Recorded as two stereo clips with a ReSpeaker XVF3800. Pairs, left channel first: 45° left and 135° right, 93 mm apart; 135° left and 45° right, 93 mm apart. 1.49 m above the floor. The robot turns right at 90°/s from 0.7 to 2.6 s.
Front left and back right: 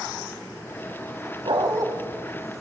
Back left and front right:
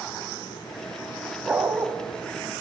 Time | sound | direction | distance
1.4 | a dog barking | 125° right | 2.5 m